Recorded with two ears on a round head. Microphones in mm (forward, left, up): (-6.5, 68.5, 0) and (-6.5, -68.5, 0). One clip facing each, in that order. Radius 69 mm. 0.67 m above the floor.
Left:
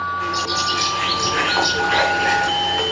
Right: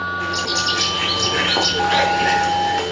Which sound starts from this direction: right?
A bird, at 0.2 s.